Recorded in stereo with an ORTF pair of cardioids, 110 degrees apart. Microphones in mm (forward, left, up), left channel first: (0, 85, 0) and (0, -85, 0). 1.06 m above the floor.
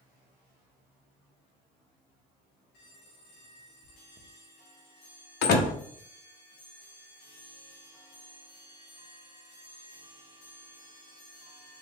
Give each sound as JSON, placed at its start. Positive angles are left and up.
{"t": 3.8, "sound": "chewing", "azimuth_deg": -15, "distance_m": 0.8}
{"t": 5.4, "sound": "a door slam", "azimuth_deg": 70, "distance_m": 0.8}